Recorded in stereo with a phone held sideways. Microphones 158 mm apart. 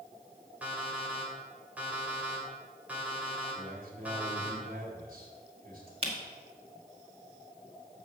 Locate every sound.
0.6 s an alarm clock: 10° right (ahead or behind), 2.5 m
3.5 s a man speaking: 65° right (ahead or behind), 3 m
6.0 s a camera shutter: 40° right (ahead or behind), 1.8 m